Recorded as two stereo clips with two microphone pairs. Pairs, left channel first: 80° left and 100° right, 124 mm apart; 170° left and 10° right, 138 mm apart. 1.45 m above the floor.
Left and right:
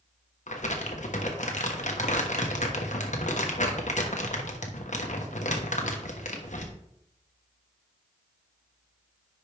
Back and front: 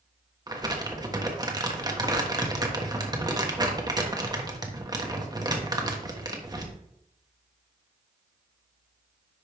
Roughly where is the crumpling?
Ahead left.